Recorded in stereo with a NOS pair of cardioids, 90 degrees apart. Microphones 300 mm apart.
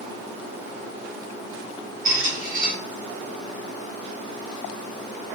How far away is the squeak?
About 1.7 m.